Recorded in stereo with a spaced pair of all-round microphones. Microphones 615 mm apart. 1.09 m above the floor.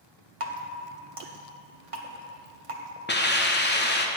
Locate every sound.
0.4 s dripping: 55° right (ahead or behind), 1.0 m
3.1 s a hiss: 15° left (ahead or behind), 0.8 m